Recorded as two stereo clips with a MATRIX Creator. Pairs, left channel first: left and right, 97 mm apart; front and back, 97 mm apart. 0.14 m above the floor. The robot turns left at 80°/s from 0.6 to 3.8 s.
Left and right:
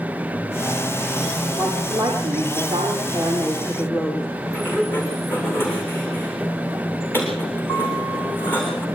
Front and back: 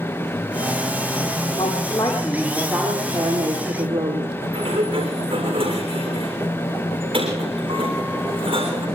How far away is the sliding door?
About 7.5 m.